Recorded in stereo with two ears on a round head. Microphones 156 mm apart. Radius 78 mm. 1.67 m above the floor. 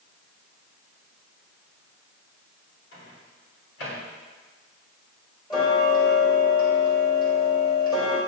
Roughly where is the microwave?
Left.